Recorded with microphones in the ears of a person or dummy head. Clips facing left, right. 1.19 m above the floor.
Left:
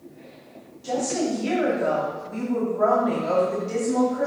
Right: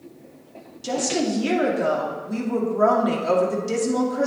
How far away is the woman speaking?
About 2.5 m.